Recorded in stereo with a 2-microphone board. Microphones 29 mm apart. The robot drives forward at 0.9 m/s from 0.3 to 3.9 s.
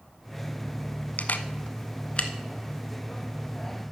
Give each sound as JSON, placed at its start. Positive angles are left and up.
{"t": 1.2, "sound": "a camera shutter", "side_deg": 65, "distance_m": 0.6}